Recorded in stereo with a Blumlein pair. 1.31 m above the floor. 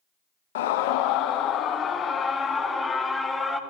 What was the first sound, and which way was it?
A scream, 55° left.